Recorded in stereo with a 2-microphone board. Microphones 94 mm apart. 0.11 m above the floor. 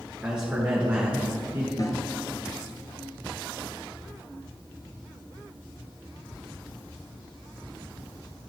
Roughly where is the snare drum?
Left.